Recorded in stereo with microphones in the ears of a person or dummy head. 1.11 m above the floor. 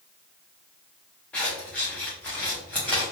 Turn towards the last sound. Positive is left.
turn(degrees=10)  # may be behind; listen again after turning